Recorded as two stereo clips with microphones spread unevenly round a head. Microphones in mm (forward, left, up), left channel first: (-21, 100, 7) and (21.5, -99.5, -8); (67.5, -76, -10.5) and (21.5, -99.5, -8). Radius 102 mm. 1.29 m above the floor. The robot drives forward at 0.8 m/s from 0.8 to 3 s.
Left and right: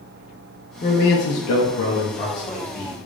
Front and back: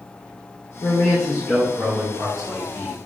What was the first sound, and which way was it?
A man speaking, 45° left.